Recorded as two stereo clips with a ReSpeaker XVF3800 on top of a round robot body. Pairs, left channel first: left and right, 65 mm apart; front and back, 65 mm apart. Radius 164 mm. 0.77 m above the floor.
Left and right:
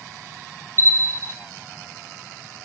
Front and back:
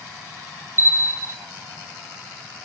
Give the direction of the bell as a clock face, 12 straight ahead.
4 o'clock.